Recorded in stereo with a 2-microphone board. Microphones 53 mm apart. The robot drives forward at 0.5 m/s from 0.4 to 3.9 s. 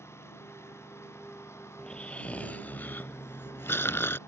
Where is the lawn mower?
55° left (ahead or behind); by 4.3 s 60° left (ahead or behind).